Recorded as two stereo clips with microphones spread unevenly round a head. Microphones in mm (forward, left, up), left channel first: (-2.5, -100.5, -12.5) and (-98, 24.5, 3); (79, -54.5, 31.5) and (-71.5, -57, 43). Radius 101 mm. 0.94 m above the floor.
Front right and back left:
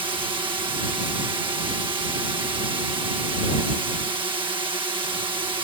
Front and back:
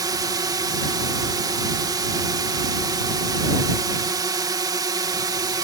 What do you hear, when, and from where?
0.0 s a drone: 145° left